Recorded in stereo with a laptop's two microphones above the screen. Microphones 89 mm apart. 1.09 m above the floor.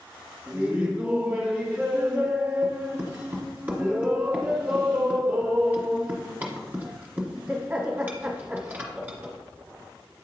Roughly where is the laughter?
Right.